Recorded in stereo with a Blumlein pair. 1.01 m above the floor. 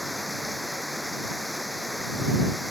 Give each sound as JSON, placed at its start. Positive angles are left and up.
{"t": 0.0, "sound": "running water", "azimuth_deg": 0}